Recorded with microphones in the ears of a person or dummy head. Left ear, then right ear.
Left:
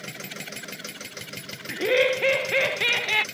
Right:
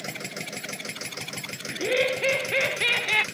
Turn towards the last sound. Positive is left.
turn(degrees=10)  # may be behind; listen again after turning